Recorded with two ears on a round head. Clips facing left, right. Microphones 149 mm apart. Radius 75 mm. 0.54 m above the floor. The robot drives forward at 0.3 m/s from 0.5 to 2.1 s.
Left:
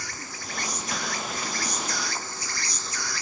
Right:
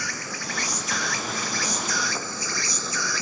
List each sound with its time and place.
0.0 s an insect: 55° right (ahead or behind); by 3.2 s 65° right (ahead or behind)